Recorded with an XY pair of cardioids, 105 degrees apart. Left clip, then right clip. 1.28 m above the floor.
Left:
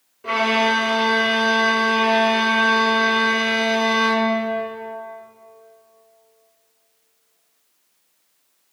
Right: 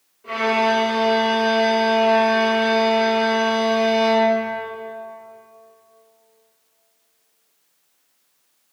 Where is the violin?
65° left, 2 m.